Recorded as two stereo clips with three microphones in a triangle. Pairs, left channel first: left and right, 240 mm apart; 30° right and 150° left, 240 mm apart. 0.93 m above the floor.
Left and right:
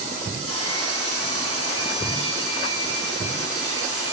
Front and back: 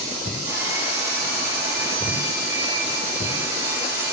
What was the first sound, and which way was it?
Sawing, 70° left.